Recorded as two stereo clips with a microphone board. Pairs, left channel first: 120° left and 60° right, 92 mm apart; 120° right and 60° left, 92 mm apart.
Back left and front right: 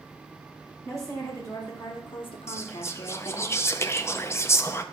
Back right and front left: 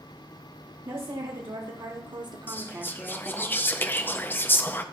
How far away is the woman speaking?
About 1.8 m.